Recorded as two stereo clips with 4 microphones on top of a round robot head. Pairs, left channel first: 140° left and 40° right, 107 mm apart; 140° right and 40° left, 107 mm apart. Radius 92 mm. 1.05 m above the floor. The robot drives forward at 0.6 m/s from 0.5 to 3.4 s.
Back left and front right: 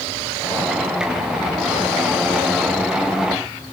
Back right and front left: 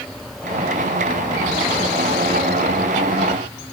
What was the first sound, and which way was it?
Only background noise.